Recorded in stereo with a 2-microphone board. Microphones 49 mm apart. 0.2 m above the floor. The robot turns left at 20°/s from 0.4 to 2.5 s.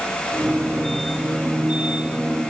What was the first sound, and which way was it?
Only background noise.